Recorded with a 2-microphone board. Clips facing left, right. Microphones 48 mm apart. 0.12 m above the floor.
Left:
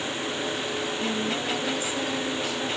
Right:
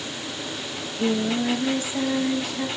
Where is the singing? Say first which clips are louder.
Right 8 dB; 50° right (ahead or behind), 2.5 m.